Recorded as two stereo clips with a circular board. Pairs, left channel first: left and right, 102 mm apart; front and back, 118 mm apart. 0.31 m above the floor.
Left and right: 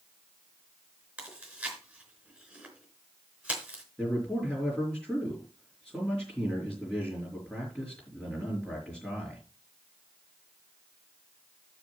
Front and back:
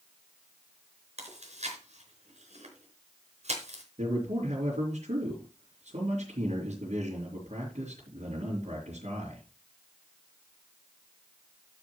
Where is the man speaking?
175° left, 5 m.